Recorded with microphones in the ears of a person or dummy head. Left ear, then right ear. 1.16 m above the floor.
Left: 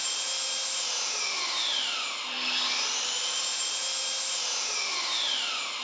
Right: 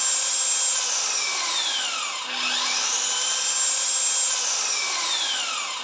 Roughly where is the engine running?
Right.